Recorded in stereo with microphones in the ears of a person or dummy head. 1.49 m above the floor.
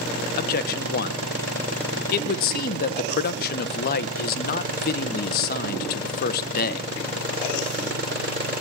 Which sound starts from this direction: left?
A man speaking, at 0.4 s.